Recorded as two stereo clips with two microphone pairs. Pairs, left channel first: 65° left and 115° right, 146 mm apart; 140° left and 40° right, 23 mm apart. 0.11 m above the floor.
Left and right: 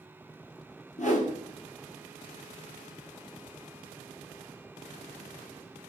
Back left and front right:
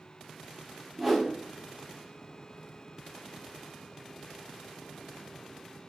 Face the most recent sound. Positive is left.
turn(degrees=50)